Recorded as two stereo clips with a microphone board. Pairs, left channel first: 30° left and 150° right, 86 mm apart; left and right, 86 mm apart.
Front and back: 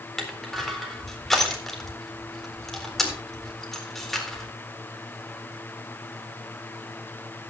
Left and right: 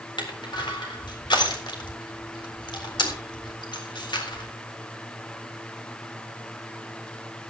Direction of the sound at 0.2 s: 115° left.